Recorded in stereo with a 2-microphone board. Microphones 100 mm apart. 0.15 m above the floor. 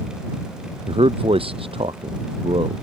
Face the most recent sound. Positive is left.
turn(degrees=-75)  # may be behind; listen again after turning